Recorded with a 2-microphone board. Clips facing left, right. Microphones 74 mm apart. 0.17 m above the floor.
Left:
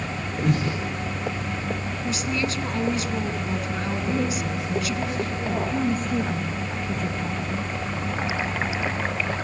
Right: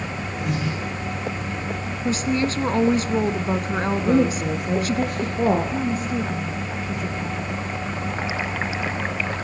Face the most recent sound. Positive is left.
turn(degrees=0)  # may be behind; listen again after turning